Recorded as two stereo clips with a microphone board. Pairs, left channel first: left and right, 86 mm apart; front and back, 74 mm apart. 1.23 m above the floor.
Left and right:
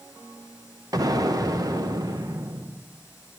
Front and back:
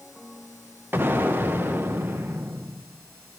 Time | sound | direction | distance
0.9 | an explosion | 125° right | 0.6 m